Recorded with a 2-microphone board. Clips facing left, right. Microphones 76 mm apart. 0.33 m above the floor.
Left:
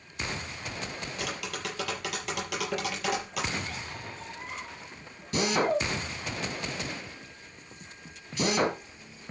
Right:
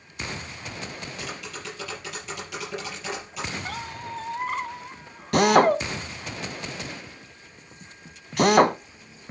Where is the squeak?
70° right (ahead or behind), 1.4 m.